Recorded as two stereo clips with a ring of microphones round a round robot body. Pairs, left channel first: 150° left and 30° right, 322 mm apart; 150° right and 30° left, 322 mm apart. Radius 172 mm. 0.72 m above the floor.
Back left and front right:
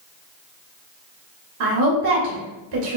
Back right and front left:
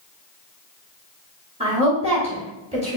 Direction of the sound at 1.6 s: 40° right.